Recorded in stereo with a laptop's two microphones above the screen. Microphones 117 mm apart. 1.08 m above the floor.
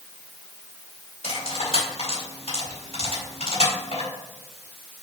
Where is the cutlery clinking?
75° left (ahead or behind), 2.5 m.